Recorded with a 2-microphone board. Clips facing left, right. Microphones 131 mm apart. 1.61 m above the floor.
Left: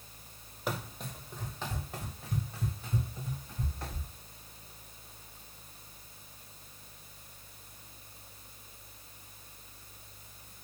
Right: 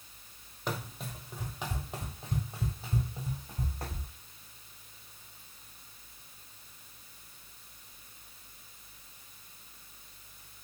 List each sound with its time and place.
0.7 s running footsteps: 5° left (ahead or behind), 1.8 m; by 4.1 s 50° right (ahead or behind), 3 m